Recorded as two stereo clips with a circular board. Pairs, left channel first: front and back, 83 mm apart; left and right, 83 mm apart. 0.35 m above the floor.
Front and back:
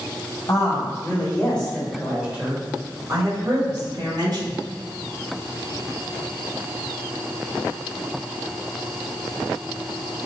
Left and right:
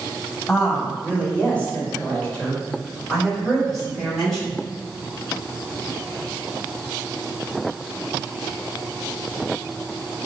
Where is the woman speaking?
25° left, 1.7 m; by 4.6 s straight behind, 2.5 m.